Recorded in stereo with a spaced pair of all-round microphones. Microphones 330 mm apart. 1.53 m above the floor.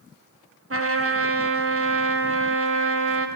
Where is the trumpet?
45° right (ahead or behind), 0.6 m.